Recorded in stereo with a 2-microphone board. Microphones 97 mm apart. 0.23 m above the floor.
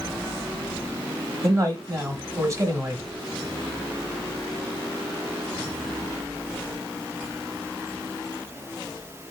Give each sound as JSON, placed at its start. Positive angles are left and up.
{"t": 1.4, "sound": "a man speaking", "side_deg": -30, "distance_m": 1.0}